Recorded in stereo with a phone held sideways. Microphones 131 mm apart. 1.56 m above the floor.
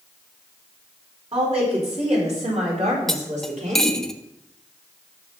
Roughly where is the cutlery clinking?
Centre.